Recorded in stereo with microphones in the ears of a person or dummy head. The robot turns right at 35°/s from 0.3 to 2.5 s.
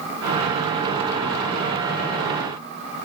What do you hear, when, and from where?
Only background noise.